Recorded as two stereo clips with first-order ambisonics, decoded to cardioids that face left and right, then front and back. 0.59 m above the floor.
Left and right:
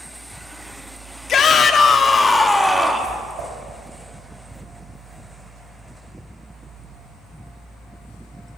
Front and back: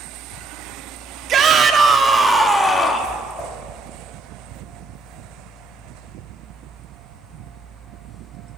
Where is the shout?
135° left, 1.0 m; by 3.1 s 25° right, 0.8 m.